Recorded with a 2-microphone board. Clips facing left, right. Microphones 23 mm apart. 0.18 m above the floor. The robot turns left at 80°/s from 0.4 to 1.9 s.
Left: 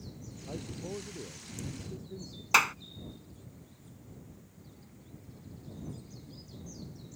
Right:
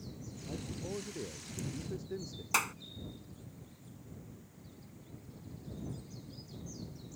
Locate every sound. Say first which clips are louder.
0.5 s a man speaking: left 1 dB; 45° left; by 2.4 s 70° right
2.5 s a clap: left 8 dB; 35° left (ahead or behind)